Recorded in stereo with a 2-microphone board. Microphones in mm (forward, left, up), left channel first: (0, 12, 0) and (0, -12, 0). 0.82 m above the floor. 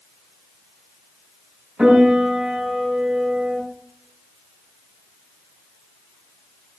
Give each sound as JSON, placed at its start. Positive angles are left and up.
{"t": 1.8, "sound": "a piano", "side_deg": -50, "distance_m": 4.0}